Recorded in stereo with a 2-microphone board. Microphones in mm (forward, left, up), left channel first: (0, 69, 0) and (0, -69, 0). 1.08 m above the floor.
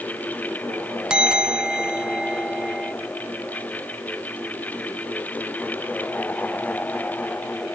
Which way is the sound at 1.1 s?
5° right (ahead or behind).